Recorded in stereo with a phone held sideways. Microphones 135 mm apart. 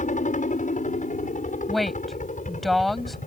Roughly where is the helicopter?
Left.